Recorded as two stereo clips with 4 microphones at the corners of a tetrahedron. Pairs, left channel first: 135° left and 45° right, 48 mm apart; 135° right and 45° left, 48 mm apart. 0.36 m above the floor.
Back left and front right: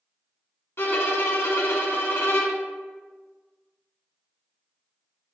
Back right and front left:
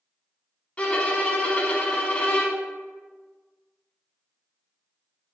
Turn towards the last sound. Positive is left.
turn(degrees=160)